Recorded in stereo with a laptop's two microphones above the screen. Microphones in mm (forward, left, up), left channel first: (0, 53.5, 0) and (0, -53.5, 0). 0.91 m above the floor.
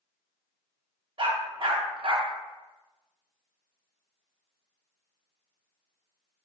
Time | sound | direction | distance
1.2 | a dog barking | 50° right (ahead or behind) | 0.5 m